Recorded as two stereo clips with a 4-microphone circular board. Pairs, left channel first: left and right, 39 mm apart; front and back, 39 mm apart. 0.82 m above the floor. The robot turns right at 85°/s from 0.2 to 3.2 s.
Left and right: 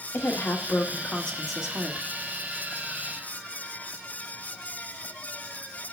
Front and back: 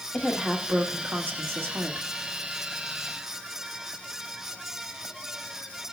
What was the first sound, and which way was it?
A woman speaking, 70° left.